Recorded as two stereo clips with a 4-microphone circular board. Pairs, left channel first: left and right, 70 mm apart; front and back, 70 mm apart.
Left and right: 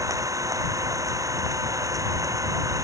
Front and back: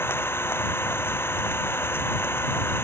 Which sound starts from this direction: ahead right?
An engine running, at 0.0 s.